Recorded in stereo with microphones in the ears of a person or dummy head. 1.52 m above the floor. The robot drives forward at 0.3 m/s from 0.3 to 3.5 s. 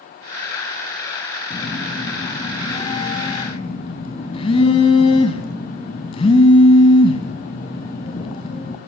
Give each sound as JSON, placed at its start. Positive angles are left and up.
{"t": 1.5, "sound": "a phone buzzing", "side_deg": 35, "distance_m": 4.0}